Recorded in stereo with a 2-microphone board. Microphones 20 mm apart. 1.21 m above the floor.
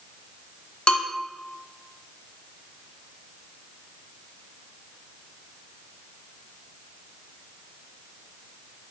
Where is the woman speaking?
No woman speaking in this recording.